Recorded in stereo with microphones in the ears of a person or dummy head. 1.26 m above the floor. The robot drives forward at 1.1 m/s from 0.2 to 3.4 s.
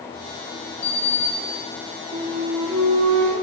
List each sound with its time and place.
0.8 s a sliding door: 10° left (ahead or behind), 1.7 m; by 2.0 s 30° left (ahead or behind), 0.6 m
2.1 s a flute: 35° right (ahead or behind), 3.5 m; by 3.3 s 50° right (ahead or behind), 2.5 m